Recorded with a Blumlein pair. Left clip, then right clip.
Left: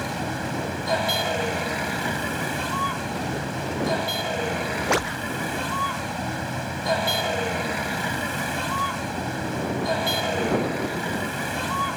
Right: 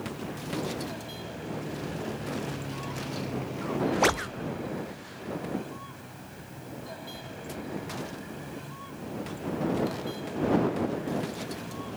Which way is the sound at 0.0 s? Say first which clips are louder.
Left 9 dB; 50° left.